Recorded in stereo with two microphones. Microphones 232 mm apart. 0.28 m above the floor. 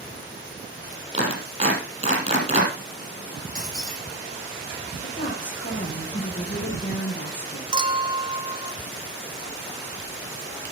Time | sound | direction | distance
1.1 | a clap | 30° right (ahead or behind) | 6 m
3.5 | breaking glass | 35° right (ahead or behind) | 8 m
5.0 | a woman speaking | 50° left (ahead or behind) | 6.5 m
7.7 | a clink | 20° right (ahead or behind) | 1.2 m